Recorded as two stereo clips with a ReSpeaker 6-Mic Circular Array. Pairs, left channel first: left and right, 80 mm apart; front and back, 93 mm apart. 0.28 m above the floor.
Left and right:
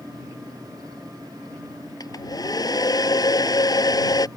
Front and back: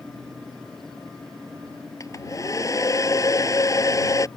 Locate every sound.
2.0 s a hair dryer: 55° left